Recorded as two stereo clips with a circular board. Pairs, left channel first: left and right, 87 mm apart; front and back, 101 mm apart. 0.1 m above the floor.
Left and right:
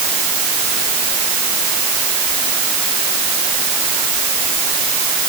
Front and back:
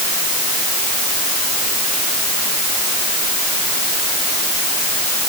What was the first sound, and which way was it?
Only background noise.